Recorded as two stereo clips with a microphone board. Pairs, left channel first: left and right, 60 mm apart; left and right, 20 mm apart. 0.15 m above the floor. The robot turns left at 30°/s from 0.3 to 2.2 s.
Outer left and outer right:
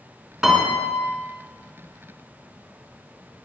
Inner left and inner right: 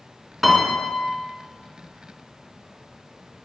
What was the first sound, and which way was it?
A piano, 10° right (ahead or behind).